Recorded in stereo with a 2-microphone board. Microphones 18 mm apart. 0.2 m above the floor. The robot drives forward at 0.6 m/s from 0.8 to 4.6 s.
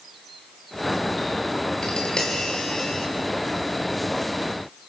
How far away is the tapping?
About 4 m.